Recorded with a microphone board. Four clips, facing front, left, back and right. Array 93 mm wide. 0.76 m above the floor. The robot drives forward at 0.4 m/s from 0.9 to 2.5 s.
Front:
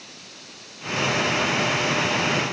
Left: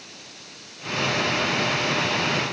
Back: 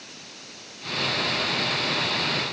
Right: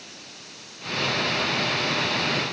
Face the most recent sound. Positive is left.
No sound to turn to.